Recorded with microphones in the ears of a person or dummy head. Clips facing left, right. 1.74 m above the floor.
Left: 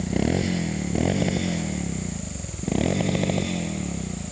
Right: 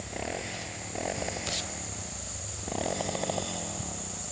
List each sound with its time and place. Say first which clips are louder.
0.0 s a motorcycle: left 13 dB; 55° left (ahead or behind); by 4.3 s 35° left (ahead or behind)